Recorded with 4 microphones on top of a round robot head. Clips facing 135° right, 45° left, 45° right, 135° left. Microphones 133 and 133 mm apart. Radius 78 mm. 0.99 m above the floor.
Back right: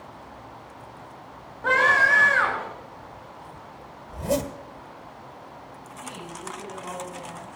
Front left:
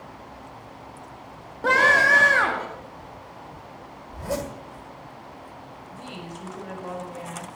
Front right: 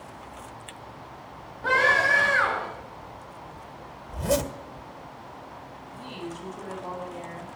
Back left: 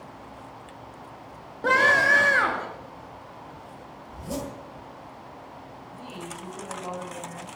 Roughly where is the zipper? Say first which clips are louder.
Back right 4 dB, front right 8 dB; ahead right.